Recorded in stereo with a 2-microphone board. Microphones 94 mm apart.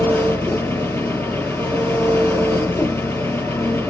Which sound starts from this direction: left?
An engine running, at 0.0 s.